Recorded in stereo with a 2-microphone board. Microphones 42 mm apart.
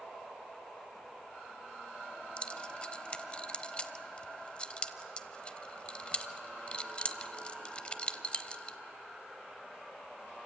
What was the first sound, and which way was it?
Keys jangling, 25° left (ahead or behind).